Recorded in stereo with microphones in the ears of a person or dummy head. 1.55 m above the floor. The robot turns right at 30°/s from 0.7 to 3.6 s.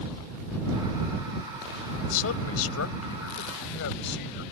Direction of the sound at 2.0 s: 70° left.